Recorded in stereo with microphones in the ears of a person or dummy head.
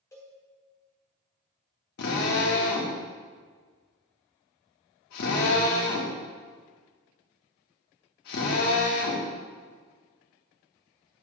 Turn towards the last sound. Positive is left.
turn(degrees=55)  # may be behind; listen again after turning